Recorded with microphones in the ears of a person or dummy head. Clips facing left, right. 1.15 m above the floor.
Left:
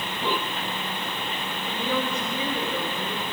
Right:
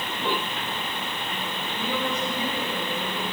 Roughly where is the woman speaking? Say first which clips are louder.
Left 2 dB; left.